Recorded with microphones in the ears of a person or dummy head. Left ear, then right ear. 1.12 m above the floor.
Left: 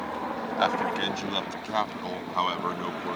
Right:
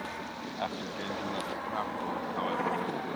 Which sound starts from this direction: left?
A man speaking, at 0.6 s.